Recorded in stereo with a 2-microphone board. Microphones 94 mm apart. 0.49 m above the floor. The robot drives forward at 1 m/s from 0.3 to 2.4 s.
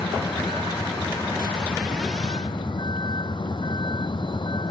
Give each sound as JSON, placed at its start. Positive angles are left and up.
{"t": 0.0, "sound": "a vehicle", "side_deg": 65}